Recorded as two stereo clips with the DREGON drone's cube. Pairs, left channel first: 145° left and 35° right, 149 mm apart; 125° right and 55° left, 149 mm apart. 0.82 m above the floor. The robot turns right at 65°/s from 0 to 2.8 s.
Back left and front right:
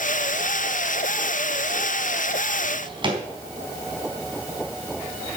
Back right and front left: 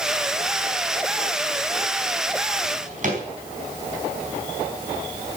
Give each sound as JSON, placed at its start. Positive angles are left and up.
{"t": 2.6, "sound": "a drawer", "azimuth_deg": 15, "distance_m": 4.0}